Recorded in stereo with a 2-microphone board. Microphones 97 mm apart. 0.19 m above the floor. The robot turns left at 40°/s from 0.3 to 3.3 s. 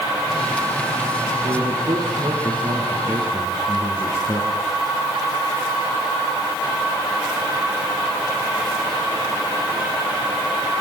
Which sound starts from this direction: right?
A man speaking, at 1.4 s.